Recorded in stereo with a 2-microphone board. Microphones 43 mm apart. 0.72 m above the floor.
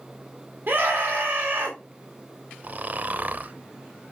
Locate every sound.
0.7 s a scream: 50° right (ahead or behind), 1.9 m
2.6 s snoring: 45° right (ahead or behind), 0.6 m